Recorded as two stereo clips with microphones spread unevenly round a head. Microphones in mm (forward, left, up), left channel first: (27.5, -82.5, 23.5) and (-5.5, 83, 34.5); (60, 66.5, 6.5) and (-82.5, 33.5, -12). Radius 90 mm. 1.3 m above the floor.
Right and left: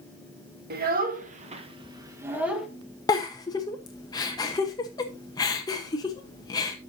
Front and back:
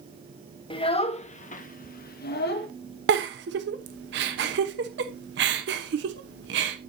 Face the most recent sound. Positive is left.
turn(degrees=-150)